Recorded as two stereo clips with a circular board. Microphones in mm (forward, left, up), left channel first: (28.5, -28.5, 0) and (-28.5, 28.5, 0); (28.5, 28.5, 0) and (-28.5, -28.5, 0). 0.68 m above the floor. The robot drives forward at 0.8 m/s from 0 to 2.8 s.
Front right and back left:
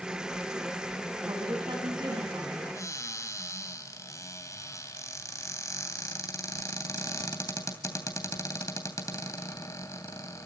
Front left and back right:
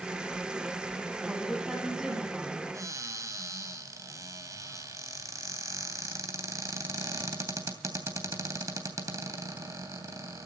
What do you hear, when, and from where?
1.2 s a woman speaking: 140° left, 6.5 m; by 2.6 s 145° left, 7.5 m
2.7 s a cupboard door: 90° right, 3 m